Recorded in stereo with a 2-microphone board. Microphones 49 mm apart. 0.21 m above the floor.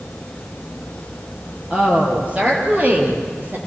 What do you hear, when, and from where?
1.7 s a woman speaking: 25° right (ahead or behind), 6.5 m; by 3.6 s 40° right (ahead or behind), 5.5 m